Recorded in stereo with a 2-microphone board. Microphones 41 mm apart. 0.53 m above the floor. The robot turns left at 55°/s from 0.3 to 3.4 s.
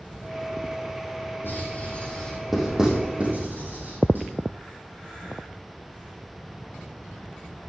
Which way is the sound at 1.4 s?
55° left (ahead or behind).